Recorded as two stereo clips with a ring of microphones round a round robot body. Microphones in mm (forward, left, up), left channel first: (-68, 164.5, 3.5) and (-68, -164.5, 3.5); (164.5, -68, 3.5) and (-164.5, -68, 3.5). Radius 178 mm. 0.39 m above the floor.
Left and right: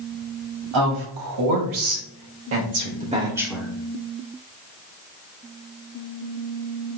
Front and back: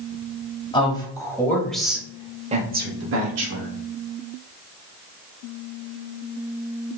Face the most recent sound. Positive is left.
turn(degrees=175)